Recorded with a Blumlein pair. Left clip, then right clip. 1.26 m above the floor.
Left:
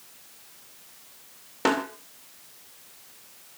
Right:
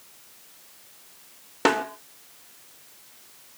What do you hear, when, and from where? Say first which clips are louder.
1.6 s a snare drum: right 2 dB; 15° right, 2.5 m